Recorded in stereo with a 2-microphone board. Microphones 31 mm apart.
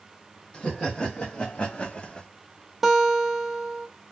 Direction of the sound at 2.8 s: 10° right (ahead or behind).